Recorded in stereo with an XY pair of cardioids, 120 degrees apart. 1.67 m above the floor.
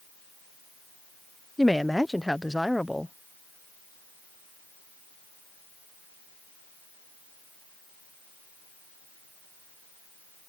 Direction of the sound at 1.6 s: 5° left.